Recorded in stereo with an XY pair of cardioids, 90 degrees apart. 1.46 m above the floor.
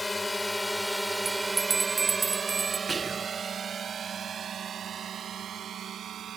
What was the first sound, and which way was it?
A drone, 20° left.